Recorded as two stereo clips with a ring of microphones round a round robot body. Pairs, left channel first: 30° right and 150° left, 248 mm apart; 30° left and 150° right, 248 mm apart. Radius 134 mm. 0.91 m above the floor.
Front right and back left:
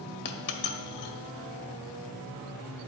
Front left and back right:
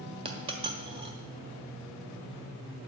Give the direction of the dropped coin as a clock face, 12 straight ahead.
3 o'clock.